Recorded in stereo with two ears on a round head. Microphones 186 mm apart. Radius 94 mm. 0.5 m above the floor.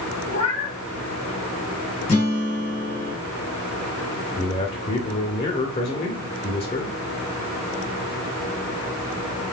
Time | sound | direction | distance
0.3 | a cat meowing | 25° left (ahead or behind) | 3 m
2.1 | a guitar | 30° left (ahead or behind) | 3 m
4.4 | a man speaking | 25° left (ahead or behind) | 1.3 m